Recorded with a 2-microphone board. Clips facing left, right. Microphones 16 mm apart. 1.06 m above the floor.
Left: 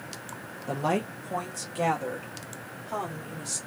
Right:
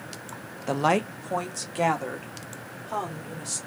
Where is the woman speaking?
45° right (ahead or behind), 0.6 m; by 3.6 s 15° right (ahead or behind), 2.5 m.